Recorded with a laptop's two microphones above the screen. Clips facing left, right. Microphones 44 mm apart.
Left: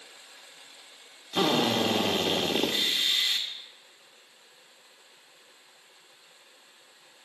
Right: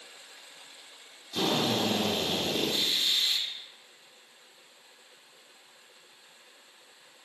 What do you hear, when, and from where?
1.3 s a drill: 45° left (ahead or behind), 1.2 m